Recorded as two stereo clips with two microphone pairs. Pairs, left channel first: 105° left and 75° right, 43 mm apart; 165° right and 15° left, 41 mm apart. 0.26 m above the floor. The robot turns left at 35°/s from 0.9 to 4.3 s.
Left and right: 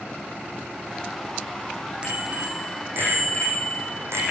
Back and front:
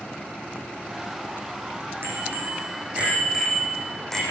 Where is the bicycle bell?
15° right, 9 m; by 4.2 s 90° right, 9 m.